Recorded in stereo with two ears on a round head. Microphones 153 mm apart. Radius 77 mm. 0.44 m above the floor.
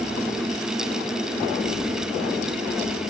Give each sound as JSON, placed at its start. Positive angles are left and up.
{"t": 1.7, "sound": "a child speaking", "side_deg": 60, "distance_m": 8.5}